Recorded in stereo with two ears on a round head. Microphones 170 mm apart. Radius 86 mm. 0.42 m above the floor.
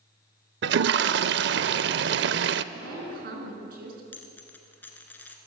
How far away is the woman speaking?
About 5 m.